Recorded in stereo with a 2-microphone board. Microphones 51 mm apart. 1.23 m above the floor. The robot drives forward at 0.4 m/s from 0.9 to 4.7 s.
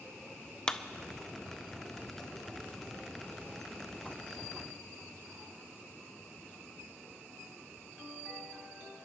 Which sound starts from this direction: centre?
A clap, at 0.7 s.